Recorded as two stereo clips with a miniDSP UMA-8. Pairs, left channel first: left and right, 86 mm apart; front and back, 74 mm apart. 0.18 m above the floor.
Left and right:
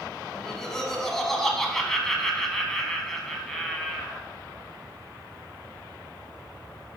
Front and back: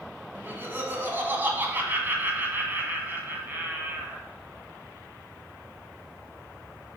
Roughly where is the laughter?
Behind.